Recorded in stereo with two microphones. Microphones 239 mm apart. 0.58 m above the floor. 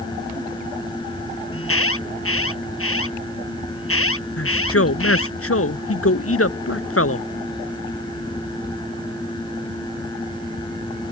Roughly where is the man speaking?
Left.